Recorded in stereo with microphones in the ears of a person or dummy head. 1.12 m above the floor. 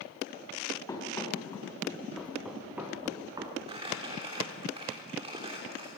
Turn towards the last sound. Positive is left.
turn(degrees=-30)  # may be behind; listen again after turning